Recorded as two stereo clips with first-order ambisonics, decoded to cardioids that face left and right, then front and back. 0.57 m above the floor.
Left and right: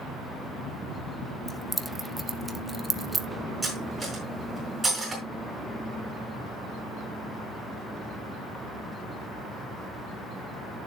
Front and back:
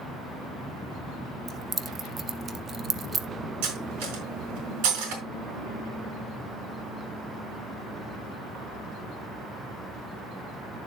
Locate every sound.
1.5 s keys jangling: 165° right, 0.7 m
3.6 s cutlery clinking: 175° right, 4.5 m